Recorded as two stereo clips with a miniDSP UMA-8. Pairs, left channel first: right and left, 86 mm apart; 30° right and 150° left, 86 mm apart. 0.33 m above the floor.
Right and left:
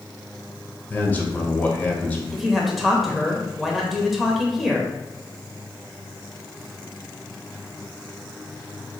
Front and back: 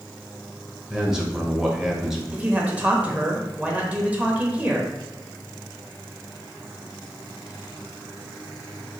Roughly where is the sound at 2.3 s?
Behind.